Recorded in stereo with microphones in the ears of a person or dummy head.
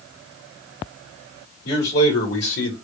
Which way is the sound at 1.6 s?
50° left (ahead or behind).